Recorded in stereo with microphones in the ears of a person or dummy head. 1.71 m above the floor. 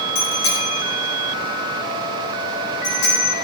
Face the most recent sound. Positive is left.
turn(degrees=80)